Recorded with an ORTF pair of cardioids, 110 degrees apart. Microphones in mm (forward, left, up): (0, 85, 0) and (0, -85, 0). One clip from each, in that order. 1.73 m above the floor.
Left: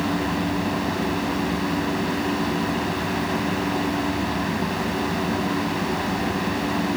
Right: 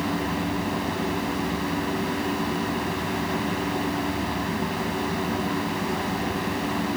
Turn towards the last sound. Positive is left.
turn(degrees=20)